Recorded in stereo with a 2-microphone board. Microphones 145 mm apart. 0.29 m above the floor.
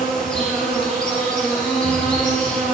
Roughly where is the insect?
Centre.